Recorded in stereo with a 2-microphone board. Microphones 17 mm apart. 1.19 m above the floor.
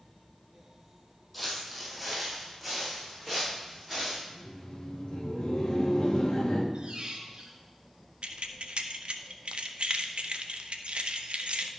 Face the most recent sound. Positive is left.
turn(degrees=-75)  # may be behind; listen again after turning